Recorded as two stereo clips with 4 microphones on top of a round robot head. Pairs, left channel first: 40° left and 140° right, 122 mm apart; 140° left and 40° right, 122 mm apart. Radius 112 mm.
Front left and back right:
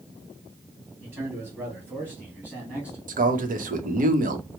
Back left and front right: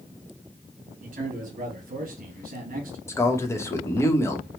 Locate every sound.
1.0 s a man speaking: 65° right, 2.5 m; by 3.0 s 55° right, 1.6 m
3.1 s a man speaking: 150° right, 1.1 m